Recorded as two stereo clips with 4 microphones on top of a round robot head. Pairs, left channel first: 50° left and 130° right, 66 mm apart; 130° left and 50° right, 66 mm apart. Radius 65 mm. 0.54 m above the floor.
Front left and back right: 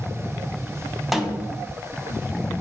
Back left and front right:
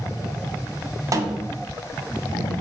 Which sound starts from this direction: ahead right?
A snare drum, at 1.1 s.